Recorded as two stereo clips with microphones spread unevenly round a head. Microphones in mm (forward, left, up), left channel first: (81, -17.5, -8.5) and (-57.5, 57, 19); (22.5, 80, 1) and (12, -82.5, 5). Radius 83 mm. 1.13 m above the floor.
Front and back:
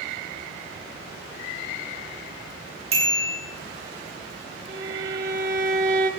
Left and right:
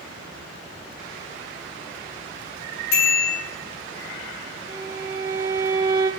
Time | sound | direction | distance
2.9 | a bicycle bell | 100° left | 9.5 m
4.7 | a violin | 160° right | 2 m